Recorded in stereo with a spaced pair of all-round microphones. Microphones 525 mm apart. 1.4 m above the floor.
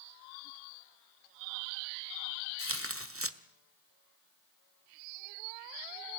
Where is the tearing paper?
25° right (ahead or behind), 1.2 m.